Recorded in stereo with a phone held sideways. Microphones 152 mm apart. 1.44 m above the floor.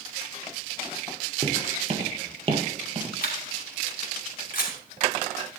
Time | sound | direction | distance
1.4 | footsteps | 40° right (ahead or behind) | 1.8 m
3.2 | a camera shutter | 75° left (ahead or behind) | 3.5 m